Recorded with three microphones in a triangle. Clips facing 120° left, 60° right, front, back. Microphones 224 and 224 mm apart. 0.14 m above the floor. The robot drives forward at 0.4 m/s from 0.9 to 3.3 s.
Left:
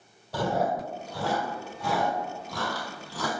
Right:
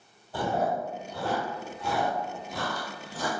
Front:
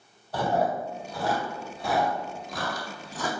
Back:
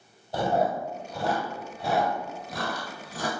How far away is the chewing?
About 3 m.